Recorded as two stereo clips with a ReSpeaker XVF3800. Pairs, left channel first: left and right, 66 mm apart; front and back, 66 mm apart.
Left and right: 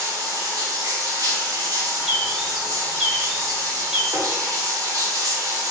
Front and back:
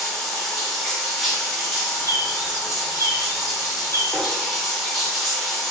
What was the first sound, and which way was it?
Running water, 85° right.